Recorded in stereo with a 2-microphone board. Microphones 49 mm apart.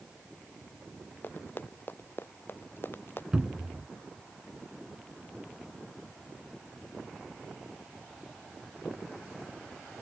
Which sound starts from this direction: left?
Running footsteps, at 1.2 s.